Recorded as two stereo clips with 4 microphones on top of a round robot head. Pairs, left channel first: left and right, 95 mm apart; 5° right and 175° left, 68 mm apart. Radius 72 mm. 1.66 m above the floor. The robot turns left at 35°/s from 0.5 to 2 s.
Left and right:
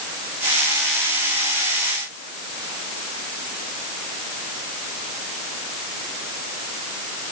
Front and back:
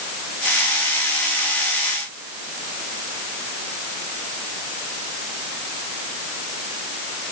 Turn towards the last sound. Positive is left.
No sound to turn to.